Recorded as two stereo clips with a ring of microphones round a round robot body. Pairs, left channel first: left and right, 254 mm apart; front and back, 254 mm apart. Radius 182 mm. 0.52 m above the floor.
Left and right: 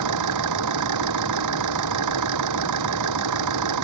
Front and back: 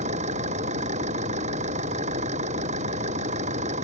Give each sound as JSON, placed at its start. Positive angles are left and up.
{"t": 0.0, "sound": "an engine running", "azimuth_deg": -105}